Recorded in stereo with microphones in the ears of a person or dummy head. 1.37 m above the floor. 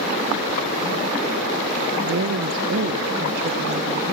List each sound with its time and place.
2.0 s a woman speaking: 60° right (ahead or behind), 1.0 m